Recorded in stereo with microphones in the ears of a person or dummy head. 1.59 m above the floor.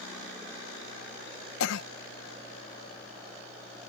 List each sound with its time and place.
1.6 s a cough: 80° left